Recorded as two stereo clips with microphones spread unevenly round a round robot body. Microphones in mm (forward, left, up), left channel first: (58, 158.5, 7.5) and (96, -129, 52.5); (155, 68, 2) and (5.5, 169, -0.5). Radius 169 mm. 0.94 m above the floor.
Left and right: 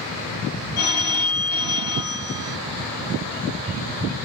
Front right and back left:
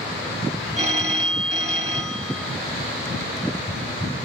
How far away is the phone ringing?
About 1.1 m.